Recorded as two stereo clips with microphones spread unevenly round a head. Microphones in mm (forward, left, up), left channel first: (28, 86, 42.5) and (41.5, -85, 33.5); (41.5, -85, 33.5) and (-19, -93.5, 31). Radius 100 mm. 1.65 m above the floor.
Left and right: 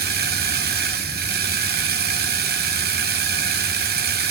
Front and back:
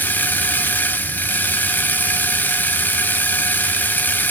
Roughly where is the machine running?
Ahead right.